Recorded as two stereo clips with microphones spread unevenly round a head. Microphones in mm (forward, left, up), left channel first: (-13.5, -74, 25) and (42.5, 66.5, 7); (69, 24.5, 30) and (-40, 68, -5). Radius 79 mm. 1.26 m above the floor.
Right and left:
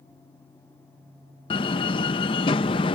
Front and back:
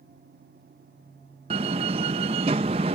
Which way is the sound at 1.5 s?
145° right.